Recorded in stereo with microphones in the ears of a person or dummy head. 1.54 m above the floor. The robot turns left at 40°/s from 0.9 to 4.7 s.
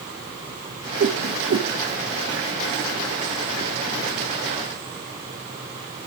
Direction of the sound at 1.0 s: 45° right (ahead or behind).